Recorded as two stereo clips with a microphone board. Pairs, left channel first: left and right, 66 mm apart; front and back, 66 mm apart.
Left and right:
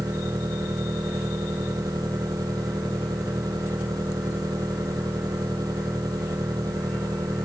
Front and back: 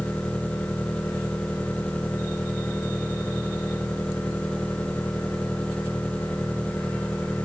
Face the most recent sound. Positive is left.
turn(degrees=-75)